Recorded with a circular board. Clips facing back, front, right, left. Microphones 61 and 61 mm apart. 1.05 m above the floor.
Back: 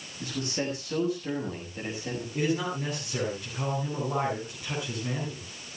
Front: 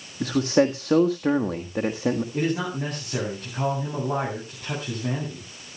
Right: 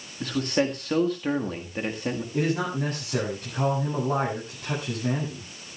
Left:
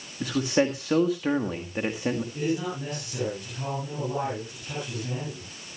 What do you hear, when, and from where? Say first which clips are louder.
0.2 s a man speaking: front 12 dB, left 1 dB; 5° left, 1.5 m
2.3 s a man speaking: front 3 dB, right 2 dB; 40° right, 7.5 m